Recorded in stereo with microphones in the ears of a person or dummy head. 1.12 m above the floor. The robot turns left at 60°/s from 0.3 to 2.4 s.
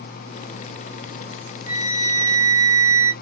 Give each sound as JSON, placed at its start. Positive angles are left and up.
{"t": 1.7, "sound": "a flute", "azimuth_deg": -15, "distance_m": 1.1}